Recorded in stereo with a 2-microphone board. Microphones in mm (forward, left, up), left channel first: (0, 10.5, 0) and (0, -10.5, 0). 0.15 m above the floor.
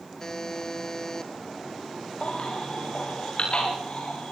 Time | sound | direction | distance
0.2 | a buzzer | 35° left (ahead or behind) | 3 m
2.2 | a baby crying | 55° left (ahead or behind) | 6.5 m